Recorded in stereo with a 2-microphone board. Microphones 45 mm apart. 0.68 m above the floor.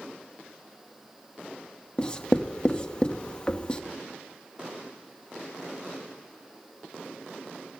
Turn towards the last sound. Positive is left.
turn(degrees=25)  # may be behind; listen again after turning